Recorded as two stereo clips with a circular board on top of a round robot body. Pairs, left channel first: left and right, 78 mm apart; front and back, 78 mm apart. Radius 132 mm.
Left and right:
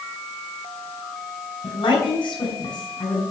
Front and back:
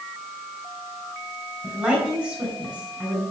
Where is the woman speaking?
105° left, 7.5 m.